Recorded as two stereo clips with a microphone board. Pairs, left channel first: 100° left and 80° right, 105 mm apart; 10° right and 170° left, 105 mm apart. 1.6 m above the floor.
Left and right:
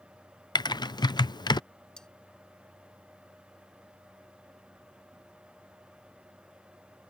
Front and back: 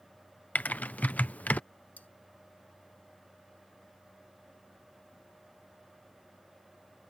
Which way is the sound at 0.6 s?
60° left.